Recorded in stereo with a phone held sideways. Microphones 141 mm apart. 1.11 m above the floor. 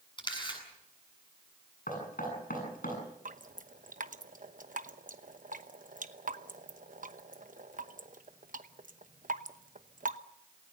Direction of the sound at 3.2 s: 70° right (ahead or behind).